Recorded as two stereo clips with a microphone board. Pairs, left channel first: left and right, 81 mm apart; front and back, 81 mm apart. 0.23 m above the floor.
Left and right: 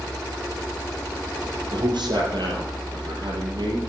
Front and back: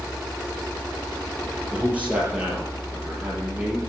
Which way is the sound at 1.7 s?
110° right.